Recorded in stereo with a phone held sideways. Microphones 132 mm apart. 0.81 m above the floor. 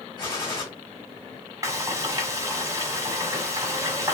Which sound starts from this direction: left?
A gunshot, at 0.2 s.